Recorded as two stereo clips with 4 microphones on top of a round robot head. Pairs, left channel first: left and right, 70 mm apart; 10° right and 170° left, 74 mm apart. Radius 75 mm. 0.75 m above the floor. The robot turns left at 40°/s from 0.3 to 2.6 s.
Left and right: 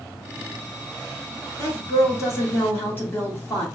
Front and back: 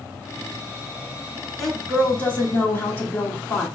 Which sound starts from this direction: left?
A woman speaking, at 1.6 s.